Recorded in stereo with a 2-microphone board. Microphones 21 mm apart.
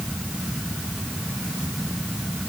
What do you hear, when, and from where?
Only background noise.